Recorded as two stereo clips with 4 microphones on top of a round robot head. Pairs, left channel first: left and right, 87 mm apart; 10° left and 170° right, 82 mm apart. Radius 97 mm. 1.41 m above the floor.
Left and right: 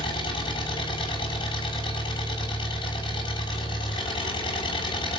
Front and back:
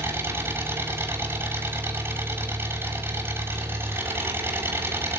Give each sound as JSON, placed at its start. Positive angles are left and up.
{"t": 0.0, "sound": "an engine running", "azimuth_deg": 125, "distance_m": 7.0}